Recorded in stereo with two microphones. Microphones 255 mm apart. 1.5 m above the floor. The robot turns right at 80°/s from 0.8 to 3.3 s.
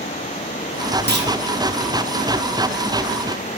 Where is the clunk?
40° right (ahead or behind), 0.6 m; by 1.3 s 50° right (ahead or behind), 0.6 m.